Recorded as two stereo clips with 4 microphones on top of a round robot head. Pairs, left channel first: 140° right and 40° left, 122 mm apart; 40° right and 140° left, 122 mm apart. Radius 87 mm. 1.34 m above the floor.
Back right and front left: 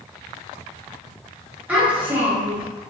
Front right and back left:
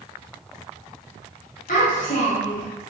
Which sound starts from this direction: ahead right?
A child speaking, at 1.7 s.